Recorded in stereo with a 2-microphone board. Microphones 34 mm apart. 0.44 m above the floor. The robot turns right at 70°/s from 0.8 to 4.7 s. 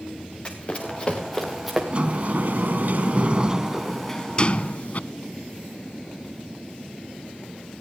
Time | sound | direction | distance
0.5 | running footsteps | 30° left (ahead or behind) | 3.5 m
1.9 | a sliding door | 140° right | 0.5 m